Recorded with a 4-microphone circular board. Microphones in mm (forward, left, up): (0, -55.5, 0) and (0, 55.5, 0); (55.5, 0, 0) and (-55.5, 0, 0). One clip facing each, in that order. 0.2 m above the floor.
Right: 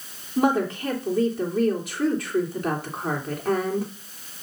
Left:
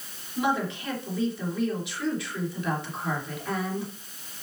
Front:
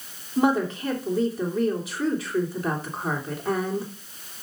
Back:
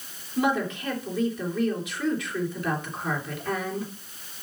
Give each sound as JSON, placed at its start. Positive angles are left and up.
{"t": 0.4, "sound": "a woman speaking", "azimuth_deg": -50, "distance_m": 3.0}